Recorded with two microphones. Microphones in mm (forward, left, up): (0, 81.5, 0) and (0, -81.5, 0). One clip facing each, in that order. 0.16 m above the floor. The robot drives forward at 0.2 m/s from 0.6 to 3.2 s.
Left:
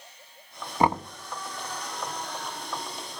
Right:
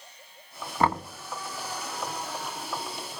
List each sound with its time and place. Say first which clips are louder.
0.8 s knocking: left 2 dB; 15° left (ahead or behind), 0.7 m